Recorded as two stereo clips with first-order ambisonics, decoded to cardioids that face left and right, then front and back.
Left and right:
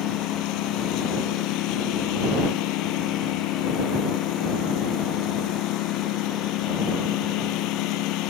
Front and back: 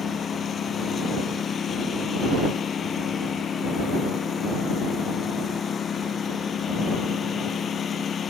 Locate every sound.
0.0 s a lawn mower: 65° left